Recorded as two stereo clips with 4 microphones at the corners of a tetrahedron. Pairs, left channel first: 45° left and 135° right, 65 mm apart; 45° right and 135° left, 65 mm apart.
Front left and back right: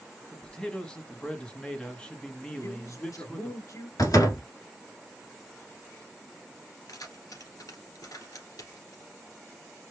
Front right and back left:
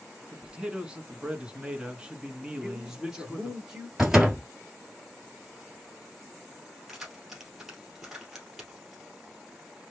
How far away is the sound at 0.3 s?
About 1.0 m.